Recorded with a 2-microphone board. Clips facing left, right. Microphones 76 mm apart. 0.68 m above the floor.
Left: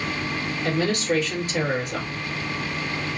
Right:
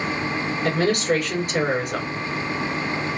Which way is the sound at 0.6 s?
65° right (ahead or behind).